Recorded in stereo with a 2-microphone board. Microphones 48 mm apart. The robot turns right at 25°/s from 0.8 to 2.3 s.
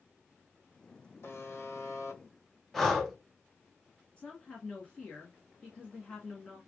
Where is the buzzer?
60° left (ahead or behind), 1.2 m; by 2.2 s 85° left, 1.2 m.